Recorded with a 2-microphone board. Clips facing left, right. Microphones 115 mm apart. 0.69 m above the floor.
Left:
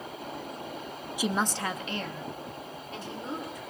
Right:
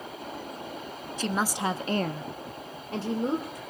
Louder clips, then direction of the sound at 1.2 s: Right 1 dB; 10° left (ahead or behind).